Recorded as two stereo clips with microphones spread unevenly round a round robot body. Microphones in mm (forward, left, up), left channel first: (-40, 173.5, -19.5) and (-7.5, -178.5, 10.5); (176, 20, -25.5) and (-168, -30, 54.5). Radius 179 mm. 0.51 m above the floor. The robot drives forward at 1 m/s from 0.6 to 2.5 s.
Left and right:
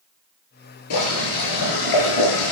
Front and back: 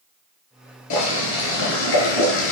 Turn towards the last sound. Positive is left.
turn(degrees=65)